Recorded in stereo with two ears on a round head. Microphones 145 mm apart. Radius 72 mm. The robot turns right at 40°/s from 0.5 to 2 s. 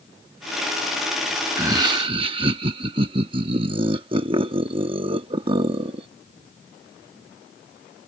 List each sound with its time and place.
1.6 s laughter: 20° right (ahead or behind); by 6.1 s 30° right (ahead or behind)